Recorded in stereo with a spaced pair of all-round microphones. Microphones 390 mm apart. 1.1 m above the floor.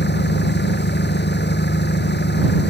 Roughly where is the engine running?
Left.